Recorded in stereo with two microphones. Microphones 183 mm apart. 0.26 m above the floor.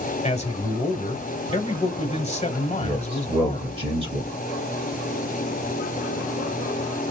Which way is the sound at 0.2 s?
35° left (ahead or behind).